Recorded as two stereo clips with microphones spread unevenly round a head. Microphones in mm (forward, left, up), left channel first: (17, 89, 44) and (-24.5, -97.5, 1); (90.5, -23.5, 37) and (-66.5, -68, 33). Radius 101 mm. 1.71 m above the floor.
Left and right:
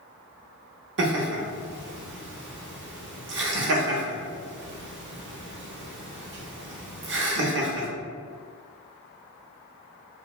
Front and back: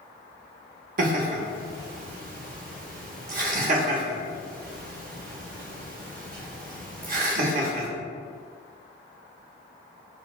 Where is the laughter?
135° right, 0.8 m.